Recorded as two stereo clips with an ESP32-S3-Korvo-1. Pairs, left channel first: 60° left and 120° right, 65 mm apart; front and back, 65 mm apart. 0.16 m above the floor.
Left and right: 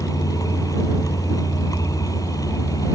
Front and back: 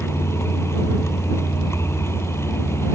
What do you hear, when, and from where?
0.0 s a vehicle: 45° left